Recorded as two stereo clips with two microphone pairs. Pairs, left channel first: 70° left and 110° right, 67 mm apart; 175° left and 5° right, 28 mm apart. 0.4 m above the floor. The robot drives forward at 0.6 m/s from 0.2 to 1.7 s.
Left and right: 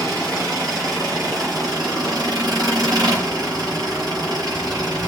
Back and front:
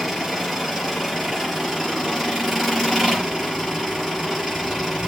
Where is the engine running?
95° right, 7 m; by 5.1 s 105° right, 7 m.